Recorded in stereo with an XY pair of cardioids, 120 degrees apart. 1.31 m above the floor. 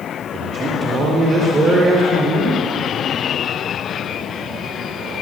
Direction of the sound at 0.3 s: 40° right.